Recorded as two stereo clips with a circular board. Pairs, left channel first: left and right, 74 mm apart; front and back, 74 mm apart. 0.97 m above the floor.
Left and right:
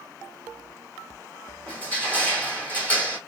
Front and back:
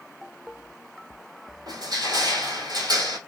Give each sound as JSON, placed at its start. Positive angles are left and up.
{"t": 1.7, "sound": "crushing", "azimuth_deg": 160, "distance_m": 1.7}